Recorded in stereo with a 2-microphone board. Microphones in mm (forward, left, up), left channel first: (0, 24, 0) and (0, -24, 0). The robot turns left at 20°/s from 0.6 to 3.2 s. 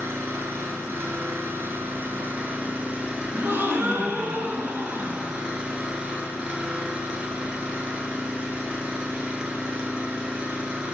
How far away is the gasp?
About 0.7 m.